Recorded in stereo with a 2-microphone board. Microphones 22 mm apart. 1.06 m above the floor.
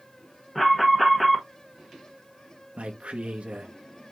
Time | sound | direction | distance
0.6 | an alarm | 5° left (ahead or behind) | 1.2 m
2.8 | a man speaking | 65° right (ahead or behind) | 1.1 m